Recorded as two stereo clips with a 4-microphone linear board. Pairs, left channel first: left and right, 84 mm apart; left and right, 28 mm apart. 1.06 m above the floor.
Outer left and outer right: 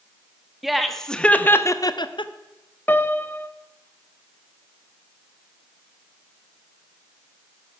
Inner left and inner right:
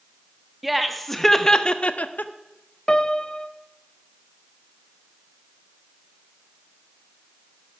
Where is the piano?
25° left (ahead or behind), 0.7 m.